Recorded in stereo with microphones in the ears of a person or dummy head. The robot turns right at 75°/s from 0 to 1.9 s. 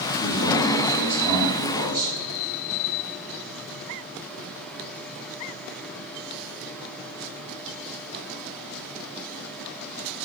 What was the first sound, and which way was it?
A man speaking, 120° left.